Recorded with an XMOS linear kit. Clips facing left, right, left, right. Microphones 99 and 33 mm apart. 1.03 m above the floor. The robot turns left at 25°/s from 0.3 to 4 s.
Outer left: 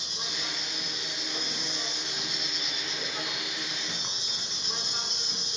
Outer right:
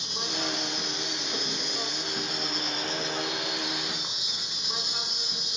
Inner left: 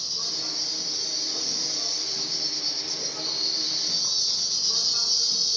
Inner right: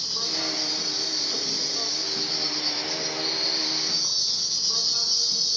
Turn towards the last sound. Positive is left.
turn(degrees=-170)